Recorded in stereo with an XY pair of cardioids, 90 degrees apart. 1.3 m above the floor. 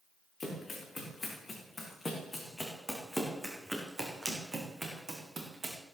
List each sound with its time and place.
0.4 s running footsteps: 35° left, 4.5 m; by 5.8 s 35° right, 4 m